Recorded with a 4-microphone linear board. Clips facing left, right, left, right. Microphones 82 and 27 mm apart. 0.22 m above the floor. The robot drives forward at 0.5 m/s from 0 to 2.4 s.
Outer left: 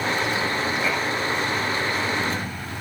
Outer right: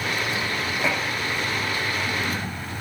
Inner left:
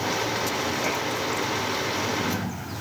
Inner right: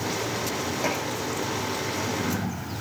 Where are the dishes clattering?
20° right (ahead or behind), 8 m.